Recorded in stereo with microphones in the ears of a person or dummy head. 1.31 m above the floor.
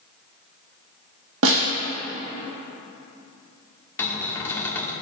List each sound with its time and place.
1.4 s a snare drum: 75° right (ahead or behind), 1.3 m
4.0 s a cupboard door: 25° left (ahead or behind), 1.5 m